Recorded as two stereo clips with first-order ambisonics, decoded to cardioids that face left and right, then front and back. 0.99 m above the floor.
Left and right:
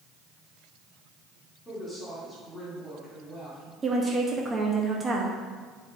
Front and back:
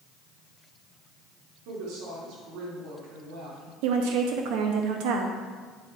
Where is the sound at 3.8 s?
165° right, 0.8 m.